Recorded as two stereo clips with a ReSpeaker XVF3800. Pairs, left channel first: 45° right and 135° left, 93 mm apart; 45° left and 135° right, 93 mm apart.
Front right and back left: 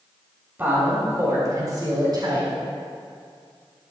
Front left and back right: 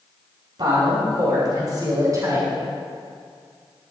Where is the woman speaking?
160° right, 4 m; by 2.5 s 170° left, 5 m.